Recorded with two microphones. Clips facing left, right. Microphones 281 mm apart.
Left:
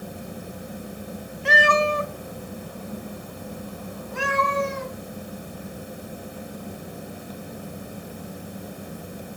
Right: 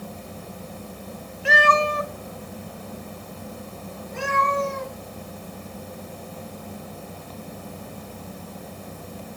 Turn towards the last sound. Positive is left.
turn(degrees=75)  # may be behind; listen again after turning